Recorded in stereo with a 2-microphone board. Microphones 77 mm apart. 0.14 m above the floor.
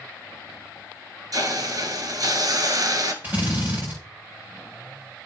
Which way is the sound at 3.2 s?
30° right (ahead or behind).